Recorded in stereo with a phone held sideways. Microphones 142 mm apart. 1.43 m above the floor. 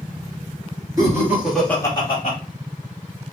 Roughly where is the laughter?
Right.